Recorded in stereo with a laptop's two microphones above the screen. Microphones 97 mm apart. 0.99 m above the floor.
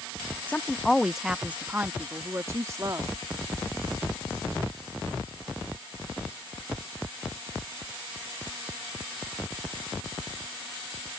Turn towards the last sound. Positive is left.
turn(degrees=-35)  # may be behind; listen again after turning